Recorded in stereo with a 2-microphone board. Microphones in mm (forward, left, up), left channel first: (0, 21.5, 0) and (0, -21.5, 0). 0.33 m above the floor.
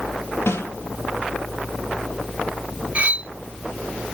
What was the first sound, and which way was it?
A snare drum, 80° left.